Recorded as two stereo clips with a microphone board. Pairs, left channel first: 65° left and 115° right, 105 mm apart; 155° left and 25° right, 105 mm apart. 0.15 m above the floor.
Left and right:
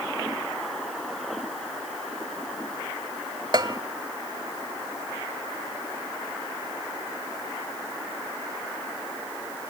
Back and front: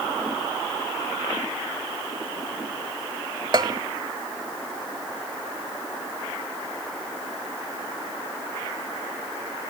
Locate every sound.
3.5 s a bell: 65° right, 0.5 m